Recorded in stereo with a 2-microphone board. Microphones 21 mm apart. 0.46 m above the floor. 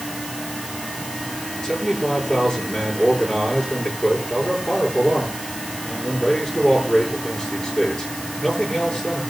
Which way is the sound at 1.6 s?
35° left (ahead or behind).